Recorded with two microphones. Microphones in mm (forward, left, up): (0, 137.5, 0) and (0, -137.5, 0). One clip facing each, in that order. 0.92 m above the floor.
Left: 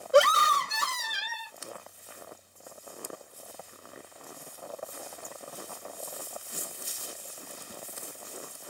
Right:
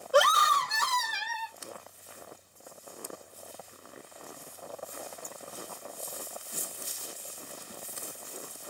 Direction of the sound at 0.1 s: 25° left (ahead or behind).